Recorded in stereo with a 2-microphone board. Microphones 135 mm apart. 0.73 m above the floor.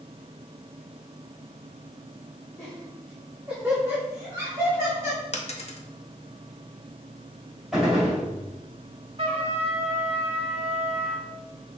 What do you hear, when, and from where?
2.6 s laughter: 10° left (ahead or behind), 1.1 m; by 5.2 s 25° right (ahead or behind), 2 m
5.3 s a dropped coin: 50° left (ahead or behind), 0.6 m
7.7 s a gunshot: 5° right (ahead or behind), 2 m
9.2 s a trumpet: 40° right (ahead or behind), 0.8 m